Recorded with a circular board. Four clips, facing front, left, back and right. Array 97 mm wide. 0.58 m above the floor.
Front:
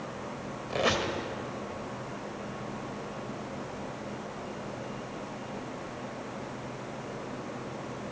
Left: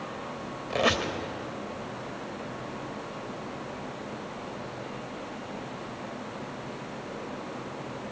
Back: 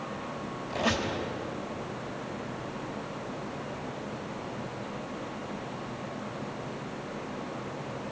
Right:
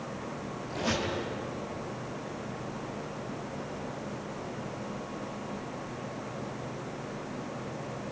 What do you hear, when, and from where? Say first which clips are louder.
0.7 s a squeak: left 5 dB, front 1 dB; 70° left, 1.6 m